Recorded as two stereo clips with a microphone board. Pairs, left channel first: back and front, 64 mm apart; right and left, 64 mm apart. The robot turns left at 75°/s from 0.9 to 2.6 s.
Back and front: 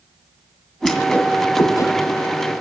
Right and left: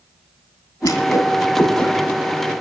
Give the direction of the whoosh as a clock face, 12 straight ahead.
3 o'clock.